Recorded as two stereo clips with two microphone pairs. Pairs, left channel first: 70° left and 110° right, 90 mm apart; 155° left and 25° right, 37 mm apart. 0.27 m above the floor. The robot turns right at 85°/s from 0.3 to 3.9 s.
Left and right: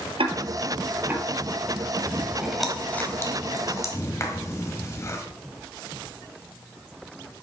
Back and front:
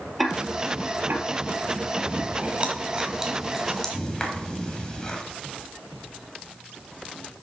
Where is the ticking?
110° right, 1.0 m; by 1.2 s 30° right, 1.0 m.